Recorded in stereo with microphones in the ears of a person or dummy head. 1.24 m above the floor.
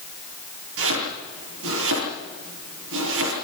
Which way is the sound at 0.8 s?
80° right.